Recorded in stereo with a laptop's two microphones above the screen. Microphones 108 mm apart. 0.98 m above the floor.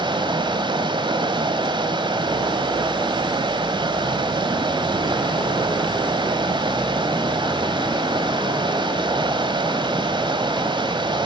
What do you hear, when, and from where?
0.0 s running water: 50° right (ahead or behind), 2.0 m